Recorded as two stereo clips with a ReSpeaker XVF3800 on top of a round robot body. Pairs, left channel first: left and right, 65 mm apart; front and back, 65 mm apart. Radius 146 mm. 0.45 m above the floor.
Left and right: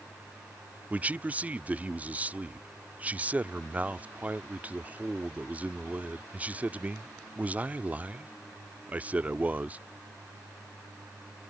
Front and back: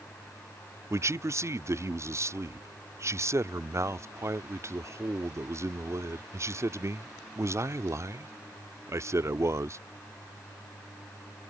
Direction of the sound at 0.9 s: 155° right.